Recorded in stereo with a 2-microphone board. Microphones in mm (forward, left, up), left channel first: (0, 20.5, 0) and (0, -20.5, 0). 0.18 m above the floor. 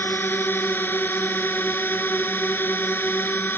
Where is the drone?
60° left (ahead or behind).